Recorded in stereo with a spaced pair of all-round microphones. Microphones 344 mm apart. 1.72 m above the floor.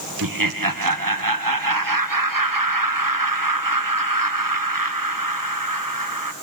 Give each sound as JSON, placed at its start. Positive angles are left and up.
{"t": 0.2, "sound": "laughter", "side_deg": -70, "distance_m": 1.6}